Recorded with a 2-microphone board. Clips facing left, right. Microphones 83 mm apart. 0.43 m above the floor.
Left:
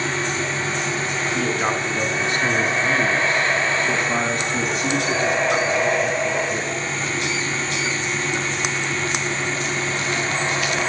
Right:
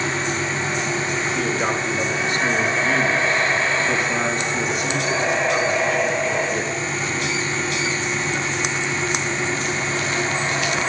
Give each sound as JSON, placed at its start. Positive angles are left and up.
{"t": 1.3, "sound": "a man speaking", "side_deg": 35, "distance_m": 4.5}